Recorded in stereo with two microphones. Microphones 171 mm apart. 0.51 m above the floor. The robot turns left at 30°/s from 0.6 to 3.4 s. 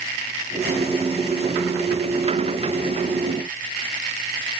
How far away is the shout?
I don't hear a shout.